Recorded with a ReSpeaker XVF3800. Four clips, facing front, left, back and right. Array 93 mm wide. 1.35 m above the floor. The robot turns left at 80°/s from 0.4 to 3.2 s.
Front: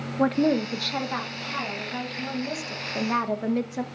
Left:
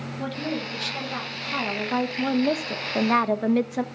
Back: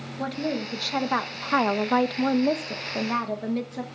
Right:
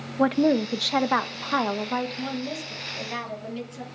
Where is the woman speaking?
60° right, 1.2 m; by 3.8 s 80° left, 1.2 m.